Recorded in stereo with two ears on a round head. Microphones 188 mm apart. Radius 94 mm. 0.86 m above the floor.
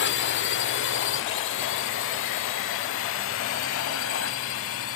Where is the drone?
60° left (ahead or behind); by 5.0 s 70° left (ahead or behind).